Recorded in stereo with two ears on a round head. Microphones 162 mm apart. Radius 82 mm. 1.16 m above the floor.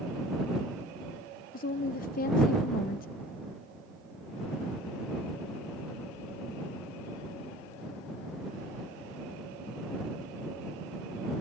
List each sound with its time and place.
1.5 s a woman speaking: 50° left (ahead or behind)